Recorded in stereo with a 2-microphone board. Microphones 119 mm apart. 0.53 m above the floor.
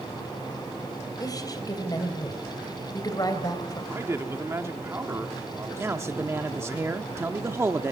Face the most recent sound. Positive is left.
turn(degrees=-20)  # may be behind; listen again after turning